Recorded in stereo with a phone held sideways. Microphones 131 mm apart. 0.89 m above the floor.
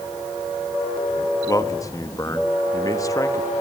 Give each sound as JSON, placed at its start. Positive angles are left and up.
{"t": 1.5, "sound": "a man speaking", "side_deg": 25, "distance_m": 1.2}